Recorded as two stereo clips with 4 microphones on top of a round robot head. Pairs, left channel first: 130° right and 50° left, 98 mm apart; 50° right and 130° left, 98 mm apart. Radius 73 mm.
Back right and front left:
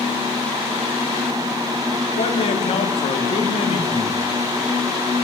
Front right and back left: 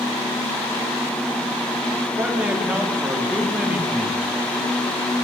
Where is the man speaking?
155° right, 2.5 m.